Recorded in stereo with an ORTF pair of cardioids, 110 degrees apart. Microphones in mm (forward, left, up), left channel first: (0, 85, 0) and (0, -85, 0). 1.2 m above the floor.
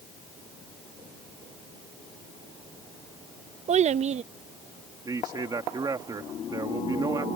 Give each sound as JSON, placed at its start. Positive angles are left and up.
{"t": 3.7, "sound": "a child speaking", "azimuth_deg": -40}
{"t": 5.0, "sound": "a man speaking", "azimuth_deg": -25}